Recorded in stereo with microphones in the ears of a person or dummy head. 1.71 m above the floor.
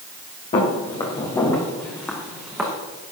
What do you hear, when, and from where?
0.5 s footsteps: 30° left (ahead or behind), 4 m; by 2.7 s 5° right (ahead or behind), 4 m